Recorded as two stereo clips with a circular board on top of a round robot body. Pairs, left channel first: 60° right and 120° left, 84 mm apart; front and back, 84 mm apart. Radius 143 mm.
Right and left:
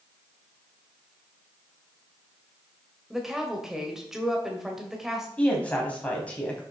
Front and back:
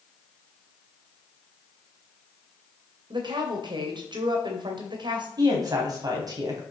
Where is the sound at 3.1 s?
155° right, 2.5 m.